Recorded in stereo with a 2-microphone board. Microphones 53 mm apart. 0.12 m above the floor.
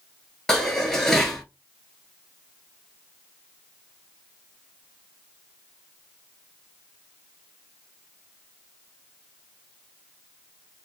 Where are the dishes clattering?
10° left (ahead or behind), 1.4 m.